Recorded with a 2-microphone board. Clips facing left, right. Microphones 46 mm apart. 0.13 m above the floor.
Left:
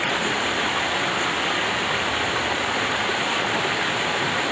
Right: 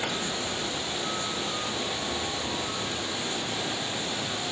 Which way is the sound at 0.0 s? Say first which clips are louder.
Left 8 dB; 70° left (ahead or behind).